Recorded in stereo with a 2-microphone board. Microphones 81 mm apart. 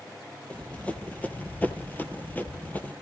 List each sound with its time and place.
0.5 s running footsteps: 15° left (ahead or behind), 1.7 m; by 2.9 s 20° left (ahead or behind), 1.7 m